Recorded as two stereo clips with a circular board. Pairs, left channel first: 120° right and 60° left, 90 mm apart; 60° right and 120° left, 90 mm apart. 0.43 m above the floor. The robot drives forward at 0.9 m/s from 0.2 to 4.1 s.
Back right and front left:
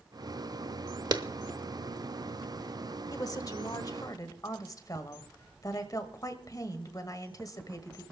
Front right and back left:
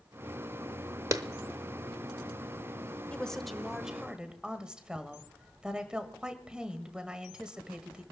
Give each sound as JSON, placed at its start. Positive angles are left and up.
{"t": 1.1, "sound": "a clap", "azimuth_deg": 80, "distance_m": 0.8}
{"t": 3.1, "sound": "a woman speaking", "azimuth_deg": -130, "distance_m": 1.0}